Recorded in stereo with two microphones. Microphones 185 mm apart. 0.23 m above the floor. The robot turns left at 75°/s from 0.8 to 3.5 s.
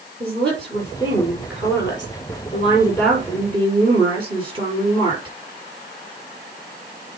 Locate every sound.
0.2 s a woman speaking: 175° left, 5.5 m; by 5.3 s 30° right, 5.5 m